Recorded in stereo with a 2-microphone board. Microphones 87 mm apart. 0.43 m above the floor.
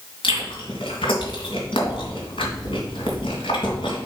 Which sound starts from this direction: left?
Chewing, at 0.2 s.